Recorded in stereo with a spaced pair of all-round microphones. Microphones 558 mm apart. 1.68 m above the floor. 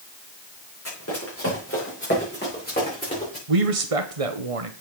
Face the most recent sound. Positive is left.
turn(degrees=-75)  # may be behind; listen again after turning